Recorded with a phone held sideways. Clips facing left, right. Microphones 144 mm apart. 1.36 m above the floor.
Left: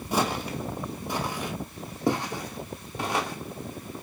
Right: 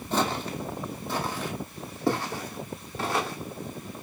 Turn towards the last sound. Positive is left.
turn(degrees=15)  # may be behind; listen again after turning